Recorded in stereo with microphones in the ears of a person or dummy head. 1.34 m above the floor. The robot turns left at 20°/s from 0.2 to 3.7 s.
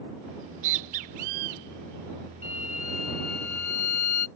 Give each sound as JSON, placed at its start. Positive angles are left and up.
{"t": 0.4, "sound": "a bird", "side_deg": -40}
{"t": 2.4, "sound": "a violin", "side_deg": 35}